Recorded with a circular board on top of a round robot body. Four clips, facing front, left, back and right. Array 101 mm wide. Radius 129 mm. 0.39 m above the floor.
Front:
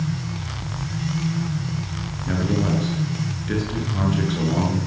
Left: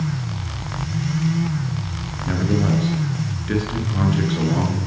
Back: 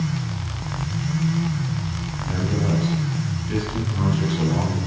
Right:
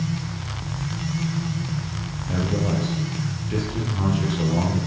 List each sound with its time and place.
2.3 s a man speaking: 60° left, 8.5 m